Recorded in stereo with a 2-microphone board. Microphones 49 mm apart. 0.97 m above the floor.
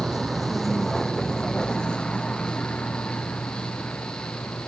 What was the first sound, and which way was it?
A vehicle, 5° right (ahead or behind).